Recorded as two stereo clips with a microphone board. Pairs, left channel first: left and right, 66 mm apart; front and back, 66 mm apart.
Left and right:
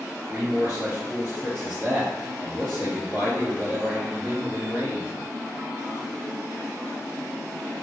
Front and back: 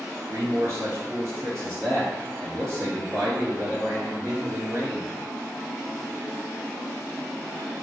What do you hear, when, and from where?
0.3 s a man speaking: 160° right, 1.5 m